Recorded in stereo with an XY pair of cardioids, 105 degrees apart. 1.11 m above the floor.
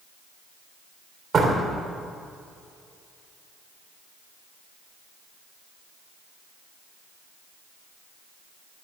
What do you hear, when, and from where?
1.3 s a door slam: 35° right, 3 m